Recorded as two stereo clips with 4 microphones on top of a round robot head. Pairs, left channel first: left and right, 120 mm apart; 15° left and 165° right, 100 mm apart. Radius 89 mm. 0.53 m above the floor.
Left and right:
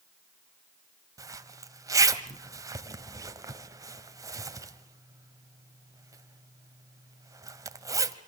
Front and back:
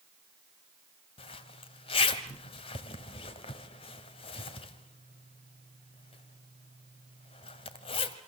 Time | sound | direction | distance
1.2 | a zipper | 30° right | 1.6 m